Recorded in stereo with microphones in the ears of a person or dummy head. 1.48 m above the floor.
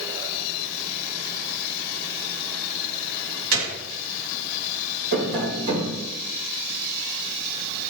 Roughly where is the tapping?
Right.